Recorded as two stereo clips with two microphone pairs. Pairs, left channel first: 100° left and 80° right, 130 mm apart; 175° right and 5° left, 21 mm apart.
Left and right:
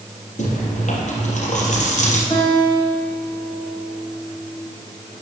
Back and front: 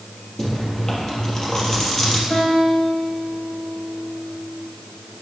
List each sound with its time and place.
0.4 s chewing: 115° left, 3 m
2.3 s a guitar: 160° left, 4.5 m